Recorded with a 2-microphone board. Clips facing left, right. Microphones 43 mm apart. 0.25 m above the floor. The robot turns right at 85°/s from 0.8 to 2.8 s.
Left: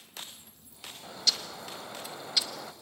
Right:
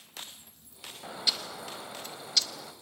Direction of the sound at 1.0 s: 20° right (ahead or behind).